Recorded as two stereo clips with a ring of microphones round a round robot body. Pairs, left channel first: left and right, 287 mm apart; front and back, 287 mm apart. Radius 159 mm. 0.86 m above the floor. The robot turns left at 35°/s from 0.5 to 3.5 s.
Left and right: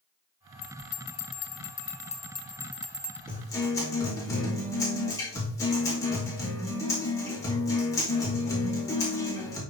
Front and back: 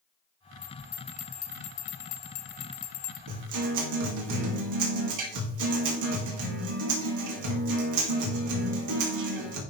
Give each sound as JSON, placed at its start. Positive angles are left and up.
{"t": 0.6, "sound": "a bell", "azimuth_deg": 80, "distance_m": 1.1}
{"t": 3.3, "sound": "a guitar", "azimuth_deg": 175, "distance_m": 2.0}